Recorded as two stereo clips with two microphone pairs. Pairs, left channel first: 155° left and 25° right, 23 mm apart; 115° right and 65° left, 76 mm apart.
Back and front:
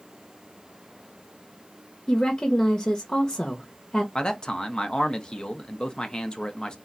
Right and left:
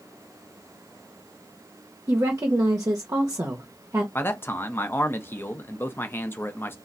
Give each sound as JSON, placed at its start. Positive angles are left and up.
{"t": 2.1, "sound": "a woman speaking", "azimuth_deg": 115, "distance_m": 0.6}
{"t": 4.2, "sound": "a man speaking", "azimuth_deg": -165, "distance_m": 0.6}